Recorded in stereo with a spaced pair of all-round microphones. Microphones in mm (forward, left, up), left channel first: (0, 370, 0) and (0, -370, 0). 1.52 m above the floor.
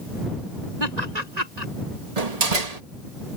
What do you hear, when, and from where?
0.8 s laughter: 65° right (ahead or behind)
2.2 s a door slam: 60° right (ahead or behind)